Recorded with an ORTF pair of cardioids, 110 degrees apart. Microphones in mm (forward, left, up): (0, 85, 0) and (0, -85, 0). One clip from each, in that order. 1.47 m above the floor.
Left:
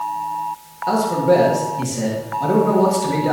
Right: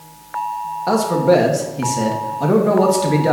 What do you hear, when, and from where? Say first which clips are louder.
0.9 s a man speaking: right 1 dB; 35° right, 1.7 m